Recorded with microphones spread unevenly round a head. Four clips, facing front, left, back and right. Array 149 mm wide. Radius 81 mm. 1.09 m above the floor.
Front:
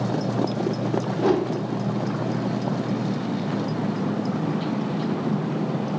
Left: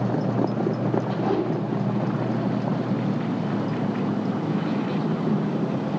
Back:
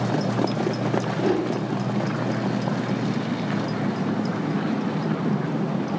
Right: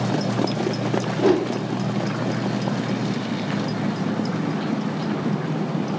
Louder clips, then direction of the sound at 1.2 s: Right 8 dB, front 3 dB; 60° right.